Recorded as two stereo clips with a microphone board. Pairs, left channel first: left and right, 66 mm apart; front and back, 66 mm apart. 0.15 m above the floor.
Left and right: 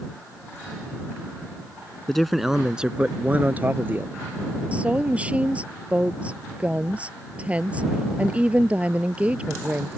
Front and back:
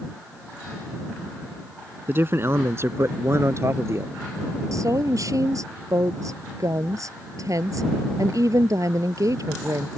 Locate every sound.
2.1 s a man speaking: 170° left; by 4.2 s 145° right
4.7 s a woman speaking: 160° right